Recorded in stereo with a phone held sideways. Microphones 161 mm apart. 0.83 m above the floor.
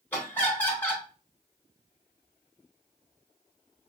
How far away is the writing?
No writing in this recording.